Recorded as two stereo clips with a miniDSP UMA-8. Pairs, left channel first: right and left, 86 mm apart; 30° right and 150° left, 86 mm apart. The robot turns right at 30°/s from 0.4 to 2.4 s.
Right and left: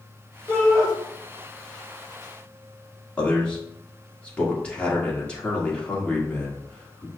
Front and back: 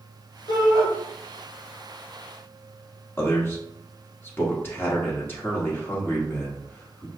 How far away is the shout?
About 1.9 m.